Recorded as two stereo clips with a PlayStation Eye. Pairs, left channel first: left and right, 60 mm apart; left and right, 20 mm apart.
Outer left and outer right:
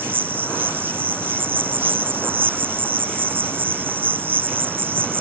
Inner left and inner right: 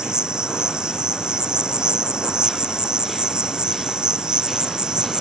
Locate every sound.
0.0 s an insect: 35° right (ahead or behind)